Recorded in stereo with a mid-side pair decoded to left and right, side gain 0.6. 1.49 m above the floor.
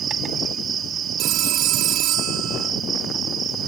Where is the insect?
40° right.